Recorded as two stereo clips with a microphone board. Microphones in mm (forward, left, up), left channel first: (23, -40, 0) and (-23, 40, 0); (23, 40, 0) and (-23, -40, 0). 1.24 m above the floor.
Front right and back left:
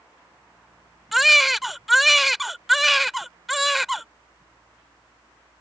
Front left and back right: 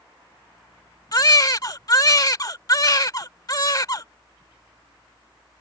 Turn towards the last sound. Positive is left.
turn(degrees=30)